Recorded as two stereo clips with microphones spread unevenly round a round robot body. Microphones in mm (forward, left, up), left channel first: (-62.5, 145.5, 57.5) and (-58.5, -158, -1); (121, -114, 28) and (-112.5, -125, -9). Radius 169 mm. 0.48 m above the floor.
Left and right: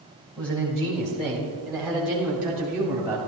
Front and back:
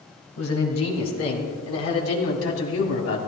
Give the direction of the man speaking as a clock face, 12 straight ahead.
12 o'clock.